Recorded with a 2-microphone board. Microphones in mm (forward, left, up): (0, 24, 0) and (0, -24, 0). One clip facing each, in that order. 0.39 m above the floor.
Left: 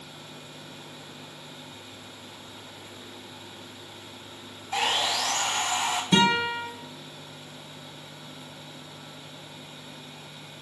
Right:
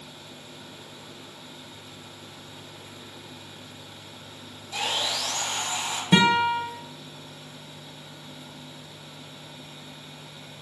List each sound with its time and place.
4.7 s sawing: 60° left (ahead or behind), 0.6 m
6.1 s a guitar: 25° right (ahead or behind), 0.8 m